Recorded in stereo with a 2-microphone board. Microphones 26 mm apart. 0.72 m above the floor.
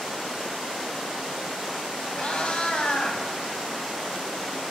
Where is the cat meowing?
40° left (ahead or behind), 1.0 m.